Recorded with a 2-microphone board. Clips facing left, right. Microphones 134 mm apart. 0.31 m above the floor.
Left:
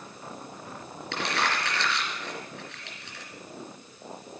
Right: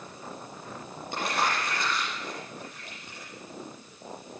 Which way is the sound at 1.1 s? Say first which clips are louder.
Right 1 dB; 80° left.